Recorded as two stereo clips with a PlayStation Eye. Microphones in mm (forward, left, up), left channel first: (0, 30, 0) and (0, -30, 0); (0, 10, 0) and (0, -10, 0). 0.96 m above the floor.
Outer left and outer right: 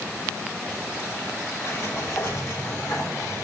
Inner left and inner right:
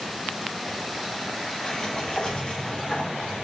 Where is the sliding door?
70° left (ahead or behind), 3 m.